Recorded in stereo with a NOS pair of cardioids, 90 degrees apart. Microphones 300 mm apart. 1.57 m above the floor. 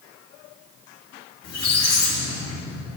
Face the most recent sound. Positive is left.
turn(degrees=60)